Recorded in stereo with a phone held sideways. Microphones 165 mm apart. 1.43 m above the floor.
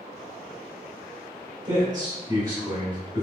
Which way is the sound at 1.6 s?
25° right (ahead or behind).